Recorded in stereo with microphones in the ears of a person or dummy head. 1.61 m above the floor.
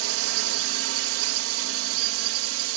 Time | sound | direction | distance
0.0 | a drone | 75° right (ahead or behind) | ?